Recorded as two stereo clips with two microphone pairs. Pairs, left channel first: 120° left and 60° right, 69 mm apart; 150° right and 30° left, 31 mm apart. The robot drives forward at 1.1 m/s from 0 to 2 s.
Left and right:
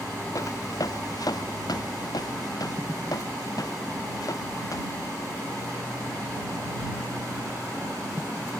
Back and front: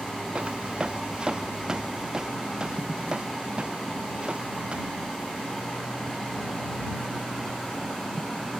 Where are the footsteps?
80° left.